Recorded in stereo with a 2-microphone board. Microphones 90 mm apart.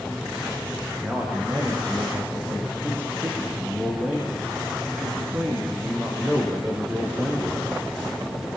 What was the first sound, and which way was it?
A man speaking, 20° right (ahead or behind).